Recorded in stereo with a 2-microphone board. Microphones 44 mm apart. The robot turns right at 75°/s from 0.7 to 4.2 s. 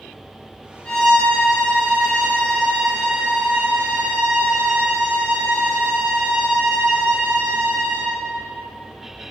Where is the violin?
25° left, 2 m; by 8.1 s 80° right, 2 m.